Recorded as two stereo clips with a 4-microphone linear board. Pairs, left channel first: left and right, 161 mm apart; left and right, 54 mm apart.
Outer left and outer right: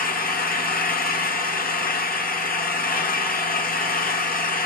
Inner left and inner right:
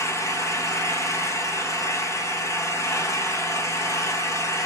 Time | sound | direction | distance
0.0 | an engine running | 65° left (ahead or behind) | 0.8 m